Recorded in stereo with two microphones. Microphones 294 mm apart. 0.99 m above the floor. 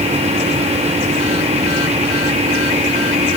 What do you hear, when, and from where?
Only background noise.